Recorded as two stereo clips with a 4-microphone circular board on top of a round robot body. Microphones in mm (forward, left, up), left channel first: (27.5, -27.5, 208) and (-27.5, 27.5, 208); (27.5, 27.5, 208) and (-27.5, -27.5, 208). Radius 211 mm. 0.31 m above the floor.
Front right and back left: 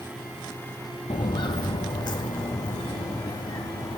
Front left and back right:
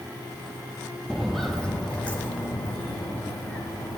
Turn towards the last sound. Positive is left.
turn(degrees=-15)